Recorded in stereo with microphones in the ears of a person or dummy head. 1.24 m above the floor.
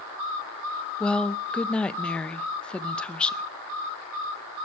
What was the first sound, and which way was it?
A woman speaking, 5° left (ahead or behind).